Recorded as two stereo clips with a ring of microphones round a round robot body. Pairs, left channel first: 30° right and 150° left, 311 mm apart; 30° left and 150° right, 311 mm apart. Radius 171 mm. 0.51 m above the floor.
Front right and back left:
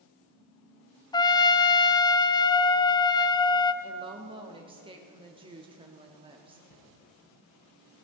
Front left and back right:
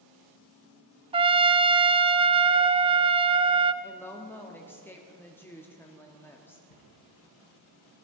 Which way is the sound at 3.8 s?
105° left.